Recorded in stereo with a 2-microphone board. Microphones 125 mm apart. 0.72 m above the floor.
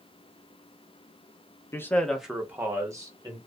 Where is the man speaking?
20° left (ahead or behind), 0.6 m; by 3.4 s 30° right (ahead or behind), 1.1 m.